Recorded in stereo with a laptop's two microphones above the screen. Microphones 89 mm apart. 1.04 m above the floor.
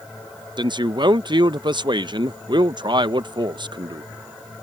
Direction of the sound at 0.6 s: 60° right (ahead or behind).